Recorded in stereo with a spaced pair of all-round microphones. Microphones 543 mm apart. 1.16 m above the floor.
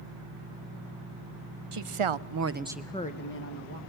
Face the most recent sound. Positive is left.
turn(degrees=30)  # may be behind; listen again after turning